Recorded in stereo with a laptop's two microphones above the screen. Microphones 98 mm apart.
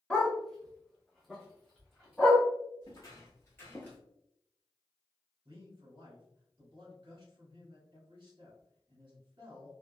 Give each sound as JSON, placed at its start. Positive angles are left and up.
{"t": 0.1, "sound": "a dog barking", "side_deg": 10, "distance_m": 0.8}
{"t": 2.8, "sound": "footsteps", "side_deg": 35, "distance_m": 1.5}
{"t": 5.5, "sound": "a man speaking", "side_deg": -60, "distance_m": 1.5}